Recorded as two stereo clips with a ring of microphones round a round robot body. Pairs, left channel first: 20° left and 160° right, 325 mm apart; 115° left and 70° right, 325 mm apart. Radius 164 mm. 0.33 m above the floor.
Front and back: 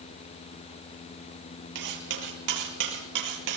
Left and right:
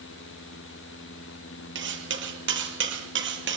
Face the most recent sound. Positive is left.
turn(degrees=-125)